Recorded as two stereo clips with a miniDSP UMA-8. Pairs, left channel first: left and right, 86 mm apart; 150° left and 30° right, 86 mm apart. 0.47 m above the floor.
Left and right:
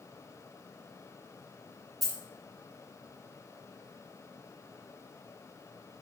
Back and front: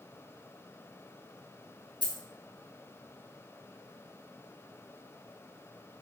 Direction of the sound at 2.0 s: Straight ahead.